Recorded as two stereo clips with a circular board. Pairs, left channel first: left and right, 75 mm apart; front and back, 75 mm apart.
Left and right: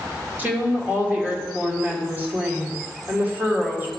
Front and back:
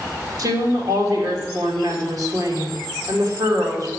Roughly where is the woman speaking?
Behind right.